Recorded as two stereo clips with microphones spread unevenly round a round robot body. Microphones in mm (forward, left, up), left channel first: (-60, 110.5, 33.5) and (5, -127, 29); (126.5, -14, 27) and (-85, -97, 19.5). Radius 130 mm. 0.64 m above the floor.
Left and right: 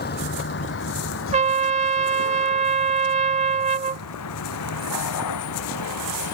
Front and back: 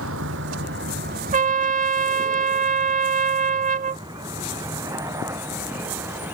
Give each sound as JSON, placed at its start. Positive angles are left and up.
{"t": 0.0, "sound": "a vehicle", "azimuth_deg": 160}
{"t": 1.3, "sound": "a trumpet", "azimuth_deg": -120}